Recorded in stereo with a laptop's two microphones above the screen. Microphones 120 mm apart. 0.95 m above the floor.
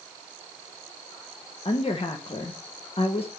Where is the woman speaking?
50° left (ahead or behind), 0.7 m.